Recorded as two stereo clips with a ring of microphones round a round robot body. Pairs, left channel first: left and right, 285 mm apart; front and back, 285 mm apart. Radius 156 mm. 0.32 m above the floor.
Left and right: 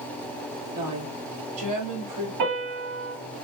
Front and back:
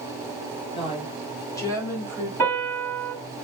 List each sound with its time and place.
0.7 s a woman speaking: 70° right, 2.5 m; by 2.3 s 85° right, 3.5 m
2.4 s a piano: 85° right, 4.5 m